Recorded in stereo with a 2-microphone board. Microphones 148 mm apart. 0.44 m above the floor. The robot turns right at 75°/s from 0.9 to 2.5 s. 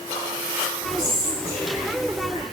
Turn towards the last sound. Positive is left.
turn(degrees=-35)